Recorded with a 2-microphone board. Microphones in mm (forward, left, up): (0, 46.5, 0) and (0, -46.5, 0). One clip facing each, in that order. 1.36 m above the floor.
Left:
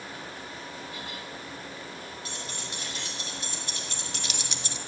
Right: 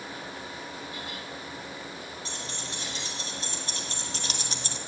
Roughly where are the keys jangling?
Right.